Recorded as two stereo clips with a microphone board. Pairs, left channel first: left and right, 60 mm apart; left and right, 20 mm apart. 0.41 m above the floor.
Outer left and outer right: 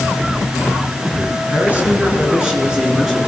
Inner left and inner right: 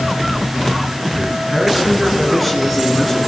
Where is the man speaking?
25° right (ahead or behind), 6.5 m; by 3.2 s 5° right (ahead or behind), 7.5 m.